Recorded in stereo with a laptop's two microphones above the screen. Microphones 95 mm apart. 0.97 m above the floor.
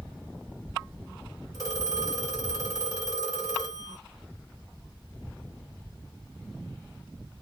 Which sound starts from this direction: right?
A phone ringing, at 1.5 s.